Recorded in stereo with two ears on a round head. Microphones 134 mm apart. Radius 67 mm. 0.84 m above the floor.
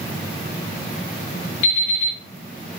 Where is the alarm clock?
50° left (ahead or behind), 2.5 m.